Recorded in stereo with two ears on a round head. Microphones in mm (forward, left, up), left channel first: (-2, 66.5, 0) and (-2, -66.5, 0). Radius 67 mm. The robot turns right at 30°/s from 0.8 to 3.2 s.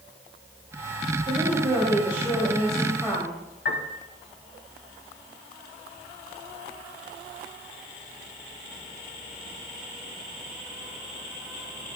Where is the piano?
80° left, 1.8 m.